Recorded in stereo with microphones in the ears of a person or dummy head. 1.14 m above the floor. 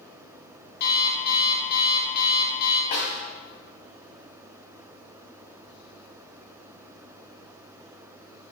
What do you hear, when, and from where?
0.8 s an alarm clock: 55° left (ahead or behind), 1.3 m
2.9 s a snare drum: 50° left (ahead or behind), 1.4 m